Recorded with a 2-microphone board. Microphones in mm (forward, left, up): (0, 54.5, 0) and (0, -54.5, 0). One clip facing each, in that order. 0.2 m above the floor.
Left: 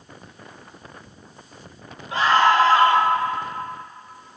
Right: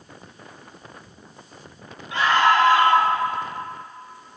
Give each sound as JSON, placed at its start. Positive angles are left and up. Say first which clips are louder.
{"t": 2.1, "sound": "a scream", "louder": "left 1 dB", "side_deg": 35, "distance_m": 5.0}